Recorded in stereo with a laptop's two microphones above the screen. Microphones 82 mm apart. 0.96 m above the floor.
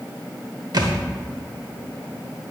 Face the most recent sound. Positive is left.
turn(degrees=-60)  # may be behind; listen again after turning